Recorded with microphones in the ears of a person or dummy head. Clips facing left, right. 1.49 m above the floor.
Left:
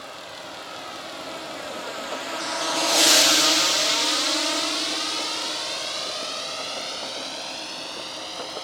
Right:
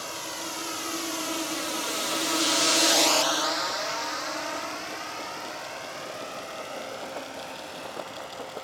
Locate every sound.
0.0 s a drone: 55° right (ahead or behind); by 8.7 s 50° left (ahead or behind)